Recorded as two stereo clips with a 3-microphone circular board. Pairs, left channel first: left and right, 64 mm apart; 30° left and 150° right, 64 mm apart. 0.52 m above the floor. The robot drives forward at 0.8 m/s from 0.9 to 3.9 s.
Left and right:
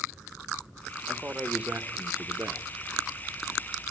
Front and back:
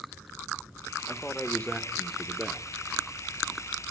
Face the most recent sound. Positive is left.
turn(degrees=-145)